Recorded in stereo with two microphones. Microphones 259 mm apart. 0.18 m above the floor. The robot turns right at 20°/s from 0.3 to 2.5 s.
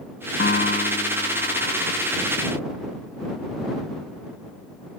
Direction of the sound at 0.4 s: 105° left.